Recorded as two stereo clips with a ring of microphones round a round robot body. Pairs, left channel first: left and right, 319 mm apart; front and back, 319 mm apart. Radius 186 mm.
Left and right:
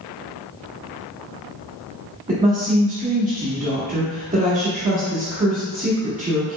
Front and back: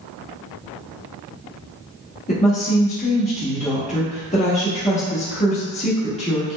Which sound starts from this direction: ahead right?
A woman speaking, at 2.3 s.